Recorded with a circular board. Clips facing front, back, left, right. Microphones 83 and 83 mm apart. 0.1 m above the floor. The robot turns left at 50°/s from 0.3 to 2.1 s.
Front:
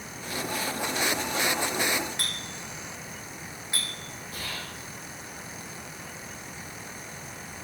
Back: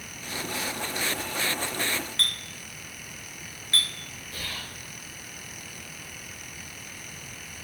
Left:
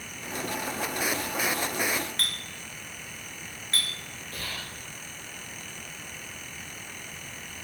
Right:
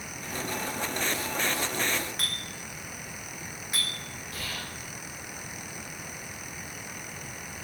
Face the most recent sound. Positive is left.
turn(degrees=50)